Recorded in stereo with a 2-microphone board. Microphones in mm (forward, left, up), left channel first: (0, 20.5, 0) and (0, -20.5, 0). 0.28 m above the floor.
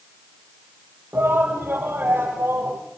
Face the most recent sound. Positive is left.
turn(degrees=-75)  # may be behind; listen again after turning